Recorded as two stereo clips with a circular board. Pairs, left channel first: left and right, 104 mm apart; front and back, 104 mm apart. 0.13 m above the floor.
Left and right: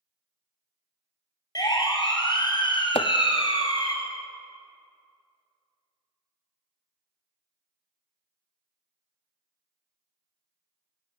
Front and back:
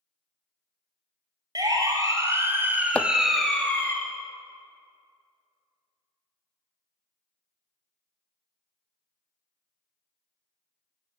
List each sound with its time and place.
1.6 s a siren: 135° left, 3 m; by 4.0 s 65° left, 1.9 m
3.0 s chopping: 80° left, 0.6 m